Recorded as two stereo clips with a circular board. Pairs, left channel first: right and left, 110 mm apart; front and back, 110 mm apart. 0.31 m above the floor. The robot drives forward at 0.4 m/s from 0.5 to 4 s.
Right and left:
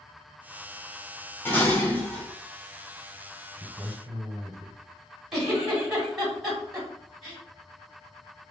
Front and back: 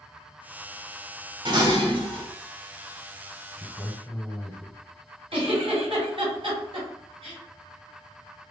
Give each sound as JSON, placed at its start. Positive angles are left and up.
{"t": 1.4, "sound": "dishes clattering", "azimuth_deg": -155, "distance_m": 1.2}
{"t": 3.6, "sound": "a man speaking", "azimuth_deg": 90, "distance_m": 1.7}
{"t": 5.3, "sound": "a giggle", "azimuth_deg": 175, "distance_m": 2.0}